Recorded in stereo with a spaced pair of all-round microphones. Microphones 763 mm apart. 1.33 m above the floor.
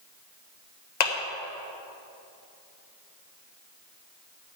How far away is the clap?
About 1.3 m.